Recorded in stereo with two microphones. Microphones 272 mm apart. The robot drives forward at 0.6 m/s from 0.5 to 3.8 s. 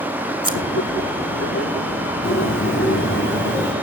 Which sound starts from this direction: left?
A bird, at 2.2 s.